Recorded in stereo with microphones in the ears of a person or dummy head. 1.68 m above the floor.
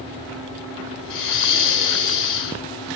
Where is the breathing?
65° left (ahead or behind), 7 m.